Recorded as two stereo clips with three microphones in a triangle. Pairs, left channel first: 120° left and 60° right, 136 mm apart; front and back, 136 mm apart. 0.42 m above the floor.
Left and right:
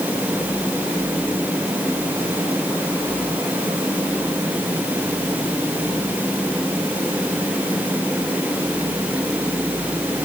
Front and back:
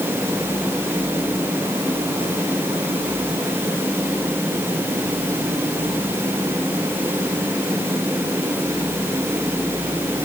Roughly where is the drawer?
I don't hear a drawer.